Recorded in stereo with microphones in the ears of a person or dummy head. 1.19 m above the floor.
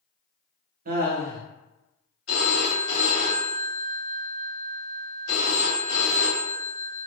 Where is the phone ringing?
80° left, 1.8 m.